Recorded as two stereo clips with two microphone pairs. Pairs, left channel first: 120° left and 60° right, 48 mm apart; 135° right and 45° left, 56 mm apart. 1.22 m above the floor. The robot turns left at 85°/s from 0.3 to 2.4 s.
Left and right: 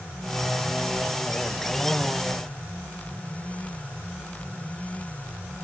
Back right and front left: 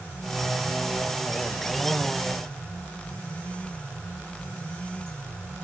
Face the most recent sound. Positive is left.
No sound to turn to.